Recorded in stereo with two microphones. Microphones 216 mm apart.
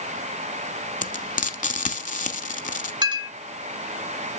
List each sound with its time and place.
1.0 s frying: 35° left (ahead or behind), 0.9 m
3.0 s a clink: 20° right (ahead or behind), 0.8 m